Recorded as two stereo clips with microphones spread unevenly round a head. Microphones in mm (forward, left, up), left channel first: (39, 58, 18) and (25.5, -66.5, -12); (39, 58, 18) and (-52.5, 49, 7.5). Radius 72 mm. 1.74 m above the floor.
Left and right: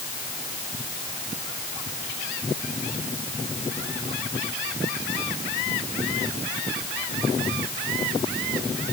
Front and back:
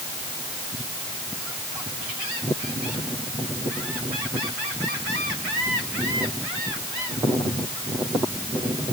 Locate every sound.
Only background noise.